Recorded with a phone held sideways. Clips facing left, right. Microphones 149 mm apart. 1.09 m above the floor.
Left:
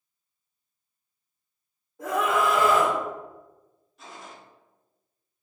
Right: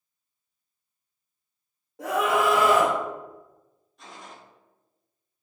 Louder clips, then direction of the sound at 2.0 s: Right 1 dB; 85° right.